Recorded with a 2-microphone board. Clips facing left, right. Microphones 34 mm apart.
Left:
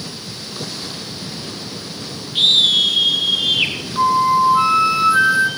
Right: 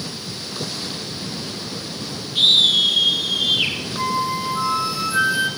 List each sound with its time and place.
2.4 s a scream: 35° left (ahead or behind), 5 m; by 3.8 s 45° left (ahead or behind), 4.5 m
4.0 s a flute: 35° left (ahead or behind), 1.5 m